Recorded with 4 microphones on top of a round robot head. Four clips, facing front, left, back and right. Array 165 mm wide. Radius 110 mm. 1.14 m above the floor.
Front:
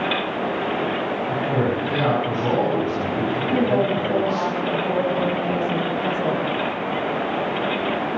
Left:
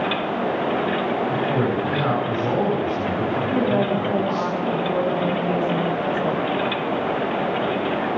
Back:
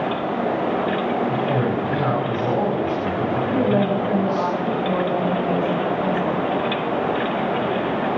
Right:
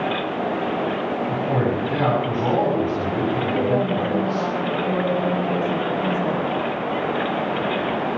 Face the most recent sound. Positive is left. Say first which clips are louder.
# left 2 dB, even
turn(degrees=5)